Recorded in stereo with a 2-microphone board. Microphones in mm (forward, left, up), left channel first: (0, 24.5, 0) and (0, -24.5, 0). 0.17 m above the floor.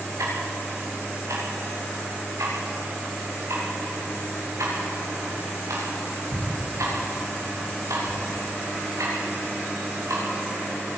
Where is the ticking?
85° right, 8 m.